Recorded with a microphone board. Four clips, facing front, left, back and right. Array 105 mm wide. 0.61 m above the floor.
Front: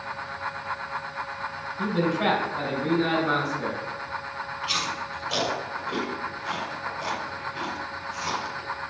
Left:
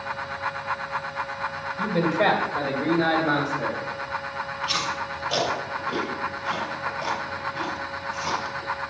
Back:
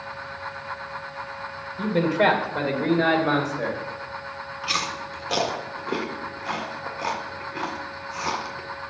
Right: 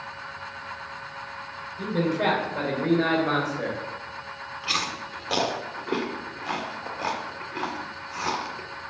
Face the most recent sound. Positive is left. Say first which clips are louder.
# left 2 dB, back 3 dB
turn(degrees=-140)